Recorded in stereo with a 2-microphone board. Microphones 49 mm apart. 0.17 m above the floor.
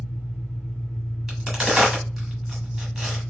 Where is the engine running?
25° left (ahead or behind), 1.8 m.